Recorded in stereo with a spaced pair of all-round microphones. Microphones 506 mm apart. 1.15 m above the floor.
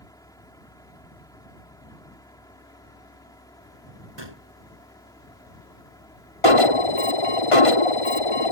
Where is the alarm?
85° left.